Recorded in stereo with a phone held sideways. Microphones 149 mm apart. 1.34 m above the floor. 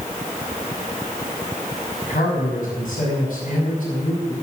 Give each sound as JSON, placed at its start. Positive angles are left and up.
{"t": 2.0, "sound": "a man speaking", "side_deg": 65, "distance_m": 6.0}